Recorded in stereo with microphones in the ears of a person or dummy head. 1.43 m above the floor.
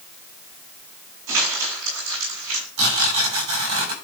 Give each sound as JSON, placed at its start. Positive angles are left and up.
{"t": 1.3, "sound": "crumpling", "side_deg": -70, "distance_m": 6.0}
{"t": 2.8, "sound": "tearing paper", "side_deg": -65, "distance_m": 8.5}